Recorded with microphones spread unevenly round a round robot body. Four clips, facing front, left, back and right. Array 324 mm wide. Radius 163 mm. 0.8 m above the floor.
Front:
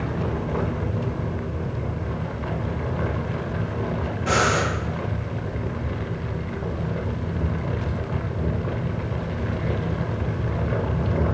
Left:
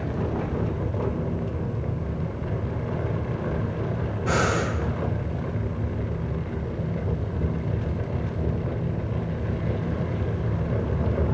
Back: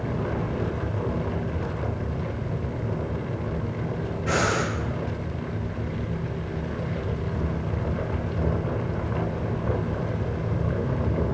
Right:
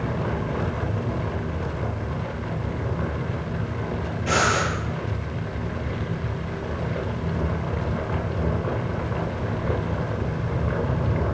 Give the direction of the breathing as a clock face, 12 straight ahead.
12 o'clock.